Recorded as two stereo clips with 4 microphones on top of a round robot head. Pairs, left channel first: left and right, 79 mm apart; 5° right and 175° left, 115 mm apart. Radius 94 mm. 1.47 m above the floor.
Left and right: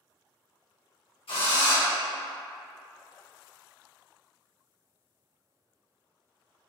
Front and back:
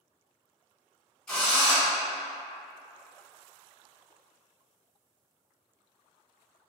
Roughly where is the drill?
Left.